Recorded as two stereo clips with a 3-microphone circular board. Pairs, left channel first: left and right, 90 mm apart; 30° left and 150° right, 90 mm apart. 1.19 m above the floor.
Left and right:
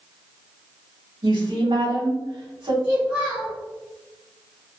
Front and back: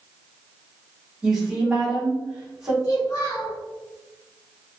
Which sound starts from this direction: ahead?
A child speaking, at 2.8 s.